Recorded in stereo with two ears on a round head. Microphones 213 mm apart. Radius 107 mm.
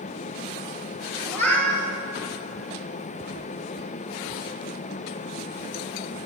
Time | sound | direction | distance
1.2 | a cat meowing | 10° left (ahead or behind) | 4.5 m